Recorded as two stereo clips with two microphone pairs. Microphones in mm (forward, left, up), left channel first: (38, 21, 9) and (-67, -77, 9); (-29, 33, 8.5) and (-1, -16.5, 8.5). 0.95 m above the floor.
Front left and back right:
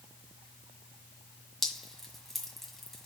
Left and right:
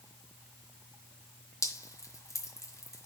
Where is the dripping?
135° left, 1.8 m.